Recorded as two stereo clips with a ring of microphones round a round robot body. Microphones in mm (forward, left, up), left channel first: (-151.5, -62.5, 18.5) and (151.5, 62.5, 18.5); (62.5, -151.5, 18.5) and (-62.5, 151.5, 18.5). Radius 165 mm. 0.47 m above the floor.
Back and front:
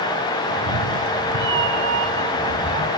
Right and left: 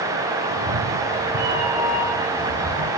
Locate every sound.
0.5 s a cat meowing: 75° left, 6 m